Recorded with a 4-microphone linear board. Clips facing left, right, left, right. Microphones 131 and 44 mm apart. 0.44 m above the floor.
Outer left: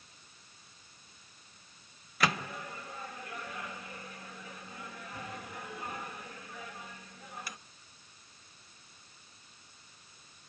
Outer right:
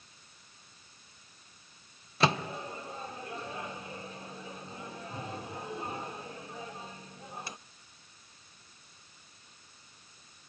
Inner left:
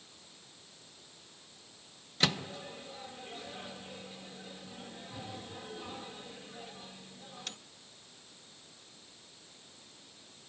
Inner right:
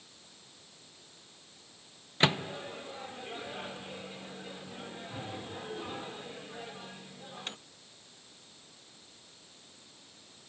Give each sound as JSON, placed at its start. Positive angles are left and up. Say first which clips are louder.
{"t": 2.2, "sound": "a microwave", "louder": "outer right 4 dB, inner right 4 dB", "side_deg": -25, "distance_m": 0.6}